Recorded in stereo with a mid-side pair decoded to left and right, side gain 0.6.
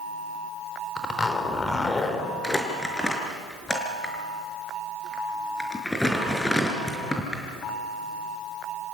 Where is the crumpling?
10° left, 5 m.